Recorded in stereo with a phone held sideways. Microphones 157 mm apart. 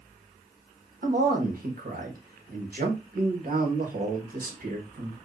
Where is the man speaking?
60° right (ahead or behind), 1.1 m.